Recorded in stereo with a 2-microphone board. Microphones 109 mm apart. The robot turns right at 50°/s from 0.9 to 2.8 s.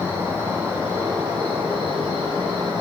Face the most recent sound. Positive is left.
turn(degrees=-55)